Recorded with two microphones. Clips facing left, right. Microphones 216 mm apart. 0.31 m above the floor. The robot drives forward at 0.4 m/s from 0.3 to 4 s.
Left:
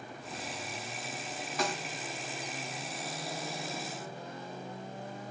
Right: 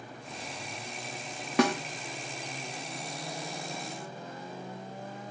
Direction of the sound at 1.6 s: 80° right.